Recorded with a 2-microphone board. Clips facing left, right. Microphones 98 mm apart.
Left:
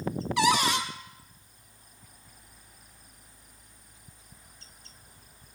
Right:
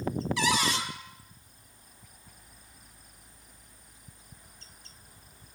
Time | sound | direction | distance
0.4 | a cupboard door | 60° left (ahead or behind) | 1.9 m